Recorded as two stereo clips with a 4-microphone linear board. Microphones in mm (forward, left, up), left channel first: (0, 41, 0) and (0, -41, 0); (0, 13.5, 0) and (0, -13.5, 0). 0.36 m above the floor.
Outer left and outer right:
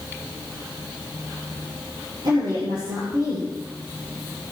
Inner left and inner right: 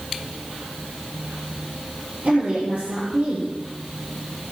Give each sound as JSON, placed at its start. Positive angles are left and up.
{"t": 2.2, "sound": "a woman speaking", "side_deg": -75, "distance_m": 8.0}